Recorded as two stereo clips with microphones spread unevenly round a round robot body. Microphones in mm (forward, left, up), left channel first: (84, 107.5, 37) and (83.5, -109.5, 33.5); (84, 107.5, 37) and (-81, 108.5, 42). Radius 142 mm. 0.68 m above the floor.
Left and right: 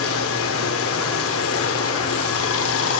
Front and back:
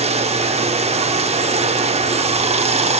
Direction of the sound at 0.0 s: 130° left.